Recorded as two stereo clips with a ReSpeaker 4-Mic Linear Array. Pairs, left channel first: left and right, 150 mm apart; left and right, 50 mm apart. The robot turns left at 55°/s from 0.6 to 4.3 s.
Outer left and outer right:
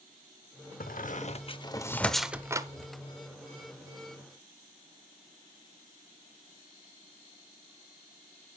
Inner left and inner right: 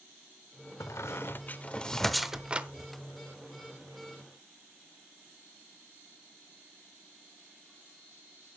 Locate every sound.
0.8 s a squeak: 75° left (ahead or behind), 0.7 m; by 2.7 s 25° right (ahead or behind), 0.7 m